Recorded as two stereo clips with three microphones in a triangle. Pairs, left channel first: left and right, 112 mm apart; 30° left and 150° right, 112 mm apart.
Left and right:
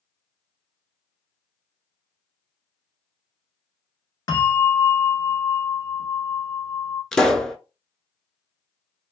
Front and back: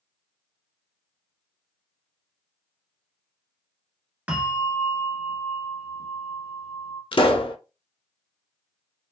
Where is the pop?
5° left, 0.5 m.